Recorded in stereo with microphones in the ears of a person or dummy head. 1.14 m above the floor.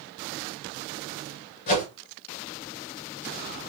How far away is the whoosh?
About 2.5 m.